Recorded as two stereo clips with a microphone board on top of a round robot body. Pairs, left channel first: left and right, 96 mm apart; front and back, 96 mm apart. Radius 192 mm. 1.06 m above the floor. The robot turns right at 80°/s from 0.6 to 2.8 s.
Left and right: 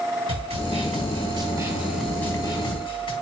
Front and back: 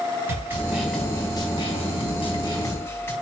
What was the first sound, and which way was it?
A snare drum, 110° right.